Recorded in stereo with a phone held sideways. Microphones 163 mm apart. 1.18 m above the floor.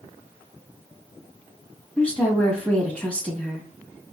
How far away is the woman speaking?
About 1.4 m.